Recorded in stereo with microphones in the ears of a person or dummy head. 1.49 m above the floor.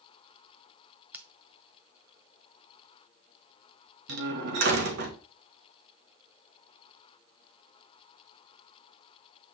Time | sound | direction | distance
1.1 | scissors | 10° right (ahead or behind) | 0.6 m
4.1 | a door slam | 70° right (ahead or behind) | 1.7 m